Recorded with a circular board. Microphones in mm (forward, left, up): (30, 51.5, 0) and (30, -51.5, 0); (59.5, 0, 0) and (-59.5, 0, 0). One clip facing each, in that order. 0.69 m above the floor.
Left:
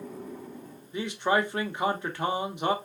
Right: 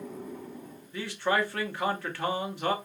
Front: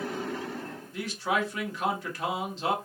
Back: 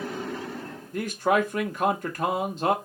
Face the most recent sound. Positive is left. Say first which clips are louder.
# left 2 dB, back 6 dB
turn(degrees=155)